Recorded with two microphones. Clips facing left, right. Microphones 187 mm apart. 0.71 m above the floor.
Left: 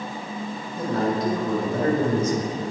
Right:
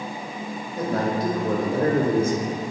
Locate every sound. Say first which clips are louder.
0.8 s a man speaking: even; 75° right (ahead or behind), 3 m; by 2.5 s 40° right (ahead or behind), 1.5 m